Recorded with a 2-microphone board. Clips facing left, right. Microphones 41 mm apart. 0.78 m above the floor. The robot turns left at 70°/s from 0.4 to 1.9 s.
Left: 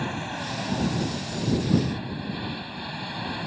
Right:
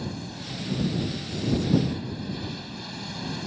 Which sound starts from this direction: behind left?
An aircraft, at 0.0 s.